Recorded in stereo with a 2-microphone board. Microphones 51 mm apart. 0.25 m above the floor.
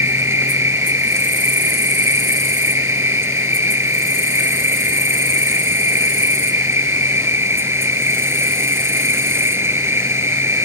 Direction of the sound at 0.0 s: 55° right (ahead or behind).